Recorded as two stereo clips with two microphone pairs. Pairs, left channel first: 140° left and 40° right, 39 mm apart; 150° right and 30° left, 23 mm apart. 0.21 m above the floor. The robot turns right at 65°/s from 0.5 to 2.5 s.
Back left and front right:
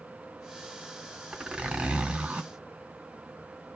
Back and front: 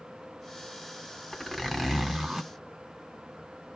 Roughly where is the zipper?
Right.